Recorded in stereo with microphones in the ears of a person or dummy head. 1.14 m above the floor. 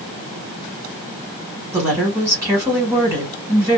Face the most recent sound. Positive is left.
turn(degrees=-10)  # may be behind; listen again after turning